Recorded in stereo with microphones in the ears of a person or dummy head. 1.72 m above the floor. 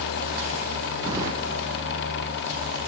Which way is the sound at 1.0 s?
20° right (ahead or behind).